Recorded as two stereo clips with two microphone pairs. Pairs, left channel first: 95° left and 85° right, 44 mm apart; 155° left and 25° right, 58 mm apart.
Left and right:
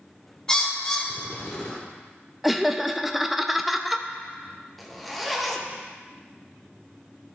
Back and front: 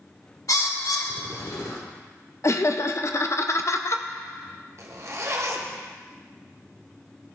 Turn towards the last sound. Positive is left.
turn(degrees=5)